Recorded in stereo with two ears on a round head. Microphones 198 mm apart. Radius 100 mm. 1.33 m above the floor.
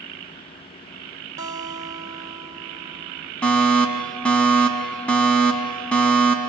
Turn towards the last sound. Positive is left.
turn(degrees=5)  # may be behind; listen again after turning